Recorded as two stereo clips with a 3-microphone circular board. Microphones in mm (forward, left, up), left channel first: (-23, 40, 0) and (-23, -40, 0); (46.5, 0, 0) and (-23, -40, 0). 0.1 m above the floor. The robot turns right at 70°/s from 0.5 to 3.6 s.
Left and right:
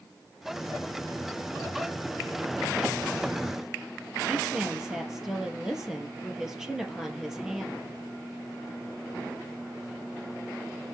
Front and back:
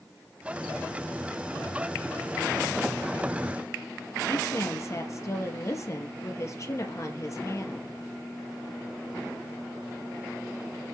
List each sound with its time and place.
4.3 s a woman speaking: 10° right, 2 m